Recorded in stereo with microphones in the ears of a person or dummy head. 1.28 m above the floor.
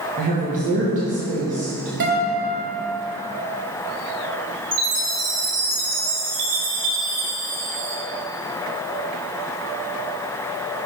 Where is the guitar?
55° right (ahead or behind), 1.9 m.